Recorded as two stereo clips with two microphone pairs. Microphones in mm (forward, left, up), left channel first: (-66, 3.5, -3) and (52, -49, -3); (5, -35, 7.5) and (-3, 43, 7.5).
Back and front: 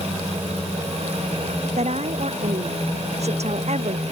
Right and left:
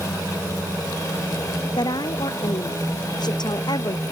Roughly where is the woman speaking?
Ahead right.